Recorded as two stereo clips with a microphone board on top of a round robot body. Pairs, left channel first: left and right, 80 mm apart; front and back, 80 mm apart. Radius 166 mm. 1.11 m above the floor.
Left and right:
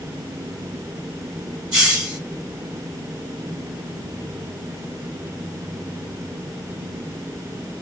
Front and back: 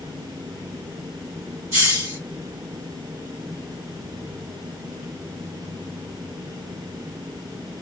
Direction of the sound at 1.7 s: 130° right.